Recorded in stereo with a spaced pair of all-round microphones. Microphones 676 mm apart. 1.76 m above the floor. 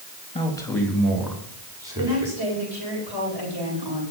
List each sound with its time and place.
0.3 s a man speaking: 5° left (ahead or behind), 3 m; by 2.4 s 5° right (ahead or behind), 5.5 m
2.0 s a woman speaking: 35° right (ahead or behind), 9.5 m